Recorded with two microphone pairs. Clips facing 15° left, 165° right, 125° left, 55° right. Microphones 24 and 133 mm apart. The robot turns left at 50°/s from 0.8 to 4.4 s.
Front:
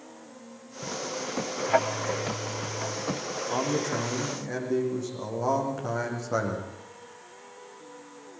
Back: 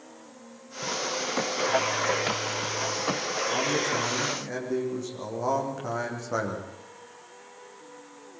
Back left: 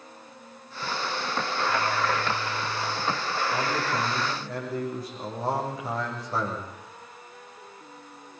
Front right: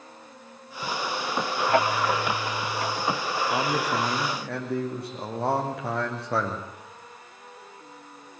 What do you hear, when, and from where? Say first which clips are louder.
1.7 s ticking: front 2 dB, front right 5 dB; 20° right, 2.5 m; by 3.0 s 80° right, 2.5 m
3.5 s a man speaking: even, front right 3 dB; 30° right, 6.5 m; by 6.7 s 75° right, 6.5 m